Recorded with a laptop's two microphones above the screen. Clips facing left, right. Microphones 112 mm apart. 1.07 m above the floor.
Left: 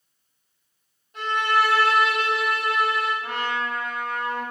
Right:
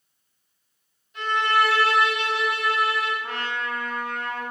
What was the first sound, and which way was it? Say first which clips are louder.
A violin: even; 50° left (ahead or behind).